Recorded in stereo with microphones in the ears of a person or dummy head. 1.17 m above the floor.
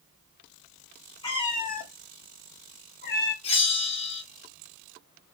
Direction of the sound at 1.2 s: 20° left (ahead or behind).